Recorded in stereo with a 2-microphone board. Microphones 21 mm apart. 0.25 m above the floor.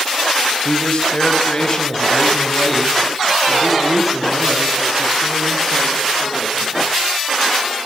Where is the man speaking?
40° left (ahead or behind), 1.4 m; by 6.9 s 15° right (ahead or behind), 4 m.